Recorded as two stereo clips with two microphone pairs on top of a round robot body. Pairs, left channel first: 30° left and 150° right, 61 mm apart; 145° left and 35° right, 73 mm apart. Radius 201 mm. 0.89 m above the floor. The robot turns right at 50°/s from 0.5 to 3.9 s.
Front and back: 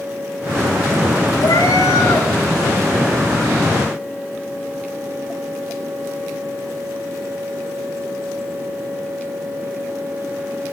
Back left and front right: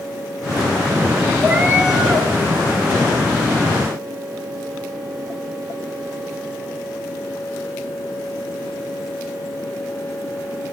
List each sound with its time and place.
1.4 s a cat meowing: 15° left, 1.4 m; by 2.3 s 60° left, 1.4 m